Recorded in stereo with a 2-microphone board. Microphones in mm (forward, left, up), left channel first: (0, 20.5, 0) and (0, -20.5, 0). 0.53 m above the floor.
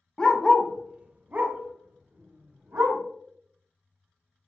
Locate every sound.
0.2 s a dog barking: 25° left (ahead or behind), 0.5 m; by 3.0 s 70° right (ahead or behind), 1.4 m